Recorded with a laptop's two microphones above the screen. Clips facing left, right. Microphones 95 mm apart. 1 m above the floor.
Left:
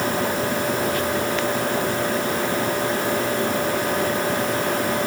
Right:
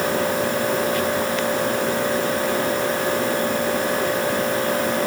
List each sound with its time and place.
Only background noise.